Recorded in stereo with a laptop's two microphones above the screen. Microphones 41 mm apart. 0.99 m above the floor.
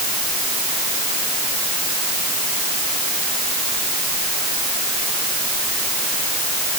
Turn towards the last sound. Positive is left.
No sound to turn to.